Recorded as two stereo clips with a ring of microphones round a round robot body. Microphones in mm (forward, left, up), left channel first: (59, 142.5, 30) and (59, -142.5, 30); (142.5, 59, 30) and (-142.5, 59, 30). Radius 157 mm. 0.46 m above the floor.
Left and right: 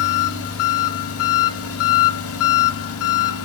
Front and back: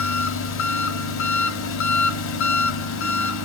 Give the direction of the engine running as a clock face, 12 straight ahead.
10 o'clock.